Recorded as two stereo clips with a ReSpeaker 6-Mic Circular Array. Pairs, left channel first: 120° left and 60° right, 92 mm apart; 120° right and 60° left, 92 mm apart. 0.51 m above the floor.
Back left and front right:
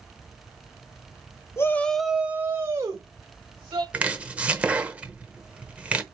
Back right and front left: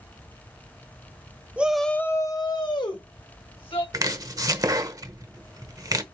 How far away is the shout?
About 0.9 m.